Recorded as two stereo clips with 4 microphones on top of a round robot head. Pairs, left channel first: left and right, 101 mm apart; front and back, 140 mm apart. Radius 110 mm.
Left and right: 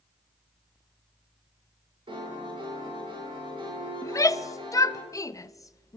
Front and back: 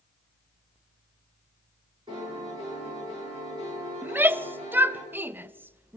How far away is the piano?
About 9 m.